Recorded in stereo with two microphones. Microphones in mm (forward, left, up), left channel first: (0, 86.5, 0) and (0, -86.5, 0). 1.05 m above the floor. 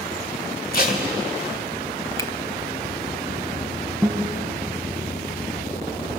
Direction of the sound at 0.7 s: 60° left (ahead or behind).